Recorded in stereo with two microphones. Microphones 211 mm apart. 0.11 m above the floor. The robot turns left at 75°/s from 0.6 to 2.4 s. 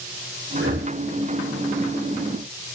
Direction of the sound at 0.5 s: 80° right.